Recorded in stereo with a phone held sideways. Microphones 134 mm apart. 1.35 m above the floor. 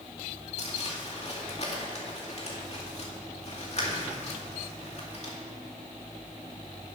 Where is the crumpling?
50° left (ahead or behind), 2 m.